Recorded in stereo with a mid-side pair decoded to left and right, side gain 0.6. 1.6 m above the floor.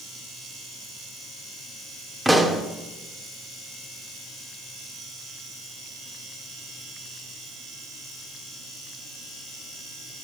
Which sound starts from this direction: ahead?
A pop, at 2.2 s.